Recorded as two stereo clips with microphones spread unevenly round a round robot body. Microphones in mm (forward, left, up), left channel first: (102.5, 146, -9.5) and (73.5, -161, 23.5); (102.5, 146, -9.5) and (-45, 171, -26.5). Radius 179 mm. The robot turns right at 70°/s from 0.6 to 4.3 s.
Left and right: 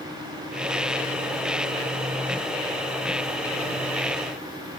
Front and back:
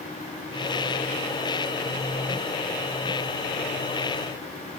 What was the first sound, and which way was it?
Only background noise.